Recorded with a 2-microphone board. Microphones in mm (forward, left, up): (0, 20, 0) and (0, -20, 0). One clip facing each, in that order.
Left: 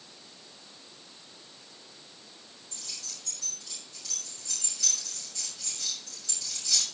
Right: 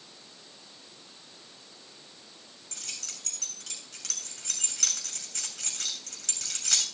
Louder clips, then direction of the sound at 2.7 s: Right 2 dB; 70° right (ahead or behind).